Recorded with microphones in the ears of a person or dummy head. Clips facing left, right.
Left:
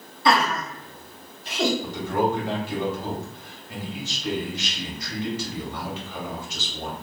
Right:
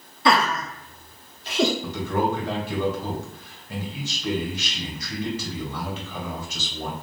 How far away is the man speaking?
About 1.8 m.